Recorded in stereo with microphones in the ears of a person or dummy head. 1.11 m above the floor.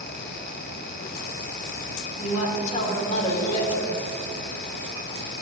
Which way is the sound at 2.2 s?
35° left (ahead or behind).